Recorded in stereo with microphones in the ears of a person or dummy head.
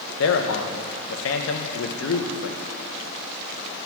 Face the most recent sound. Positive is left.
turn(degrees=65)  # may be behind; listen again after turning